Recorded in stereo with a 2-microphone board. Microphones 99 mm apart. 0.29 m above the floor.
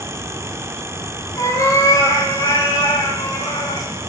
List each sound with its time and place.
1.4 s a cat meowing: 35° left (ahead or behind), 3.5 m; by 3.9 s 60° left (ahead or behind), 4.5 m